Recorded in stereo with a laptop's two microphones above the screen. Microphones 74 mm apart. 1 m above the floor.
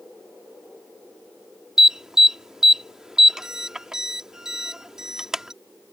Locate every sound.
1.8 s an alarm: 10° right (ahead or behind)